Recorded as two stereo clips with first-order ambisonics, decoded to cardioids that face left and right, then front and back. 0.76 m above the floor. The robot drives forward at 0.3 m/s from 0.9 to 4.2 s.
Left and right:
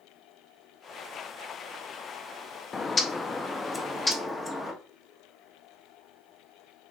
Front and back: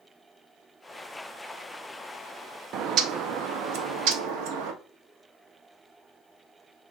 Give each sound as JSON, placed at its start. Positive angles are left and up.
{"t": 2.7, "sound": "a bird", "azimuth_deg": 155, "distance_m": 0.5}